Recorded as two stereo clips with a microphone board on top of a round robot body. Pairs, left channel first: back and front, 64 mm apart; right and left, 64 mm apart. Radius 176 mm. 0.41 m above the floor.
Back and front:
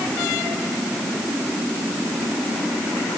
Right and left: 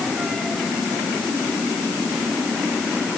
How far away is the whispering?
I don't hear whispering.